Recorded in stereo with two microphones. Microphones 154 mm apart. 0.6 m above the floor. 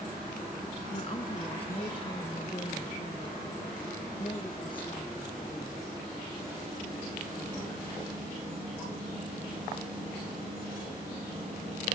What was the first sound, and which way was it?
A woman speaking, 40° left (ahead or behind).